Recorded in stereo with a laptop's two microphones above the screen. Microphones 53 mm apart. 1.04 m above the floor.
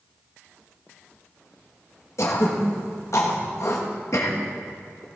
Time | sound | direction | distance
2.2 | throat clearing | 65° left (ahead or behind) | 1.7 m